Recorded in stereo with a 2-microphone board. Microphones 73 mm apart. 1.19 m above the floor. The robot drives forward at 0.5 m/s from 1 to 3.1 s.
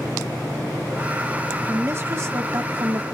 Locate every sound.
1.7 s a woman speaking: 35° right (ahead or behind), 1.8 m; by 3.0 s 55° right (ahead or behind), 1.3 m